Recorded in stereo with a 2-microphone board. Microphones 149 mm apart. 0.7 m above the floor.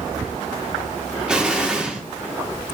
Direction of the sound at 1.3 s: 5° right (ahead or behind).